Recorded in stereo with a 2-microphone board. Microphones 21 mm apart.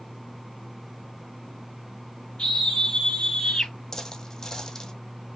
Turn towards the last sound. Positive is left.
turn(degrees=30)  # may be behind; listen again after turning